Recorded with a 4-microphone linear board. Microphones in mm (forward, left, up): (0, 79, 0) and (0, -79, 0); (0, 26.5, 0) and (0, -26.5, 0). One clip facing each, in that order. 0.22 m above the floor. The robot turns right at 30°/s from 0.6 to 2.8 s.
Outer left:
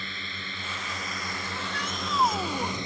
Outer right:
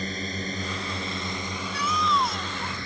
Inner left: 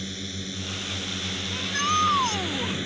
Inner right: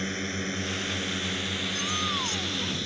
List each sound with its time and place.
0.0 s a drone: 45° right; by 2.9 s 20° left
1.5 s a shout: 95° left; by 2.8 s 135° left